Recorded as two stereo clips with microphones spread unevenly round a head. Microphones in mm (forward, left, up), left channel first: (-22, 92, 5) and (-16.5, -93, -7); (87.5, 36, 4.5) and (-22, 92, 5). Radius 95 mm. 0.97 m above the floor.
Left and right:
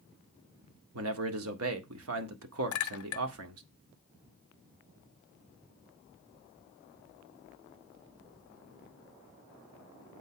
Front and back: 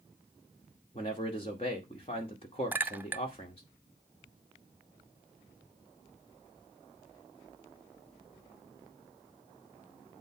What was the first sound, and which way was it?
A man speaking, 90° right.